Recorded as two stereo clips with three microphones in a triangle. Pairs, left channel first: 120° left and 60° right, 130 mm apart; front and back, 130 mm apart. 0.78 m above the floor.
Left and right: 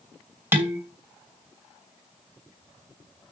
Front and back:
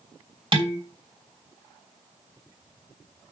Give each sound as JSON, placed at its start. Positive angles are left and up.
{"t": 0.5, "sound": "dishes clattering", "azimuth_deg": -135, "distance_m": 2.5}